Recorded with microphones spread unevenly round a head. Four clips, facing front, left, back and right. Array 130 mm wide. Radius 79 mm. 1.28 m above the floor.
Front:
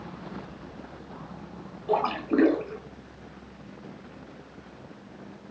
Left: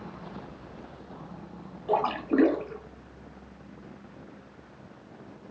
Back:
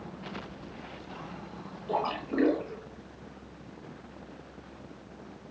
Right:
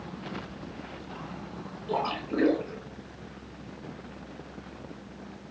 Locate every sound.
1.9 s a splash: 80° left, 3 m